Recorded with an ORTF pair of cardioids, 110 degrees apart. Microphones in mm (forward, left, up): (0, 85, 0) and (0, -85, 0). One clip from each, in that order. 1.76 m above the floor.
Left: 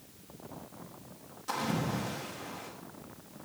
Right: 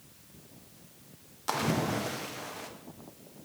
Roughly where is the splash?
Ahead right.